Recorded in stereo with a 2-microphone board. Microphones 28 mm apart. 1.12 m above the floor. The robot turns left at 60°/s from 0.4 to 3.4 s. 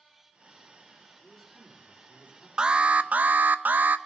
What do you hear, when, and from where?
1.2 s a man speaking: straight behind, 3 m; by 2.5 s 105° left, 3 m
2.6 s an alarm: 30° right, 0.6 m; by 4.0 s 80° right, 0.6 m